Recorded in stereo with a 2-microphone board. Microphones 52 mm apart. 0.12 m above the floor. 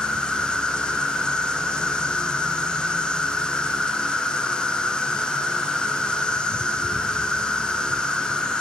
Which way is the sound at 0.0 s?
15° left (ahead or behind).